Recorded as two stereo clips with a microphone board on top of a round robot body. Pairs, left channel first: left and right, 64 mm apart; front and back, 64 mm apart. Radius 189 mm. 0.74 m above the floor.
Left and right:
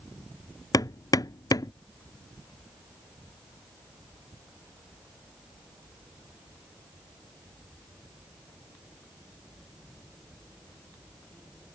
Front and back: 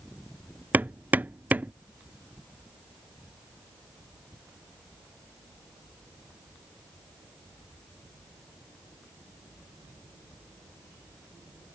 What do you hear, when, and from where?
0.7 s hammering: 115° left